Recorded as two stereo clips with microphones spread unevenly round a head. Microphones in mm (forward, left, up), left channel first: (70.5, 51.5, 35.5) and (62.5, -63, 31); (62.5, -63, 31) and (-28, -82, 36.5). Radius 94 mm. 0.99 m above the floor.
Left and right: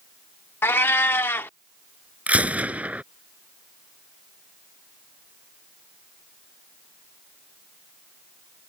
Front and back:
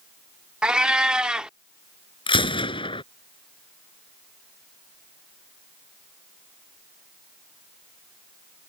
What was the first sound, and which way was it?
A cat meowing, 130° left.